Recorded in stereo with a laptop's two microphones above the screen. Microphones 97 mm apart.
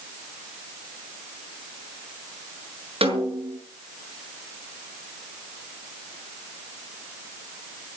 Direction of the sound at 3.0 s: 80° right.